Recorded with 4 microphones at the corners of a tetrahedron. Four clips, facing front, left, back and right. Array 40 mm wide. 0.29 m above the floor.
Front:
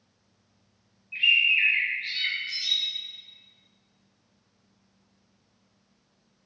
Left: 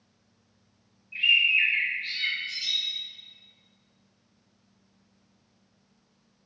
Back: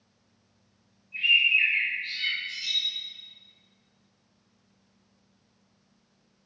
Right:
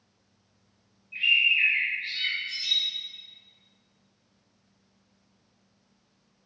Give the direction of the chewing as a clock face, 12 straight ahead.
I don't hear chewing.